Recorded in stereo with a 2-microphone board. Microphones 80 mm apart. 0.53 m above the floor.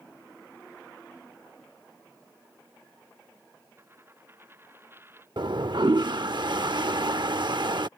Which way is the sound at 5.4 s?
65° right (ahead or behind).